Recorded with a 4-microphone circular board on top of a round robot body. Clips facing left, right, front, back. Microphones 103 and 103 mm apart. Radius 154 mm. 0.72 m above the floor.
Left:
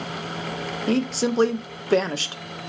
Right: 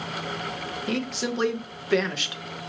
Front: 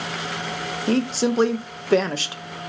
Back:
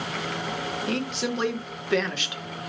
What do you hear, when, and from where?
0.9 s a woman speaking: 45° left, 0.6 m